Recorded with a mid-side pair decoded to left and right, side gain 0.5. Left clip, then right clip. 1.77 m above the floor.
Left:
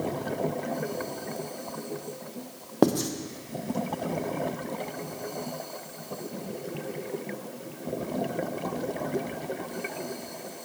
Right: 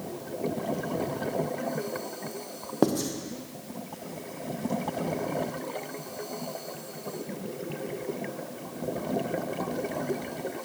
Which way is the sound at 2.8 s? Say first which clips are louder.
Left 2 dB; 15° left.